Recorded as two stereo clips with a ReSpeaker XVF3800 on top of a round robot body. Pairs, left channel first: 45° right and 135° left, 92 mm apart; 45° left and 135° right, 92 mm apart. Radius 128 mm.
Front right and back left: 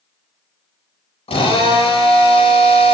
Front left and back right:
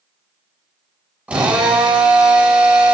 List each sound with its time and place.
1.3 s a drill: 60° right, 6.5 m